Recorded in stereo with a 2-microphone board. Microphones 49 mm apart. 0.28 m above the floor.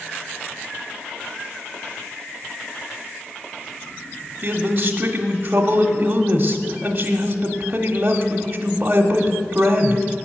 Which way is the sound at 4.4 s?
30° right (ahead or behind).